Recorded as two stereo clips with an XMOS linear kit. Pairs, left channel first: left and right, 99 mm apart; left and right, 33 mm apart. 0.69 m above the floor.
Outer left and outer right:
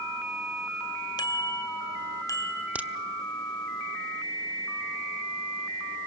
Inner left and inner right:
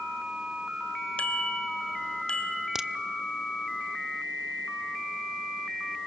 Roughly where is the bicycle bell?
Left.